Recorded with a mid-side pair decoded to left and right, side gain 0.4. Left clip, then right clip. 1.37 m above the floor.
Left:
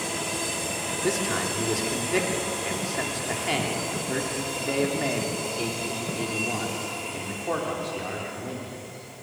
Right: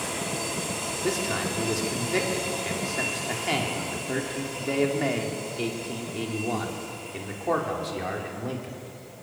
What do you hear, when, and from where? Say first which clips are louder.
1.0 s a man speaking: left 1 dB; 15° left, 4.5 m; by 8.8 s 35° right, 5 m